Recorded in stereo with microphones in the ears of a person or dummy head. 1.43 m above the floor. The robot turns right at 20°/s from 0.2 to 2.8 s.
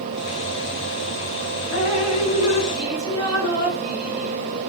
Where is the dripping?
40° left (ahead or behind), 7 m; by 4.6 s 20° left (ahead or behind), 7 m.